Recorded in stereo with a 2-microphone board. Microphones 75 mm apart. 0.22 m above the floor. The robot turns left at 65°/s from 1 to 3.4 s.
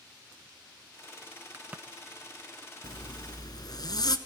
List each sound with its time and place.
1.5 s a crack: 30° right (ahead or behind), 0.8 m; by 1.8 s 15° right (ahead or behind), 0.8 m
2.8 s a zipper: 105° left, 1.1 m; by 4.2 s 70° left, 1.1 m